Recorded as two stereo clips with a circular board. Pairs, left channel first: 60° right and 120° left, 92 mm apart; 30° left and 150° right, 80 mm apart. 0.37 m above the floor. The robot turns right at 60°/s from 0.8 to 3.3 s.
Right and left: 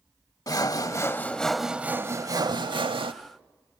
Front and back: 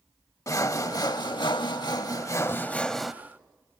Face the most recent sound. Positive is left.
turn(degrees=135)